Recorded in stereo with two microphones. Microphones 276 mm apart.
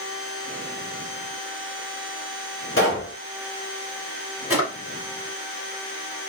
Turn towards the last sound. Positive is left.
turn(degrees=55)  # may be behind; listen again after turning